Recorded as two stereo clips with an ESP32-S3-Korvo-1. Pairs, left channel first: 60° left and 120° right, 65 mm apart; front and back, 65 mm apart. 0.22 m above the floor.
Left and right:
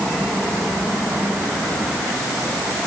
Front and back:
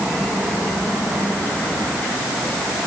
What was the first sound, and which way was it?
Only background noise.